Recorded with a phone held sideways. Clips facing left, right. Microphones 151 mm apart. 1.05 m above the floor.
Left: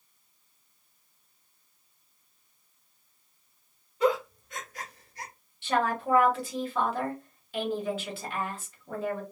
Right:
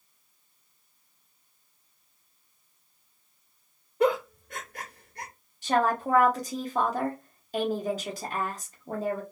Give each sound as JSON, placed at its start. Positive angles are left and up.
{"t": 4.0, "sound": "a giggle", "side_deg": -50, "distance_m": 0.8}
{"t": 5.6, "sound": "a woman speaking", "side_deg": -40, "distance_m": 0.9}